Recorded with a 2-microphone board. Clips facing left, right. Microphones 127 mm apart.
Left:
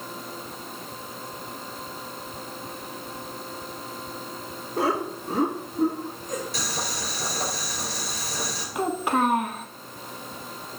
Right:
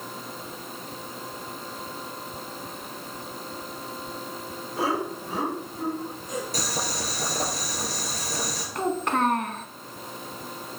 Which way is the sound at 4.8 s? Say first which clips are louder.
Left 2 dB; 50° left (ahead or behind).